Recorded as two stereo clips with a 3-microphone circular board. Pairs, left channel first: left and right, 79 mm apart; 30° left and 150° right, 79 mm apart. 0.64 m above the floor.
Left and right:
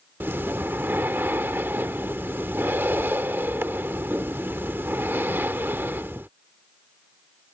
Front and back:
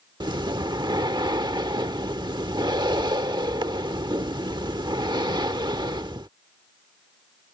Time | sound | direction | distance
0.2 | breathing | 150° right | ?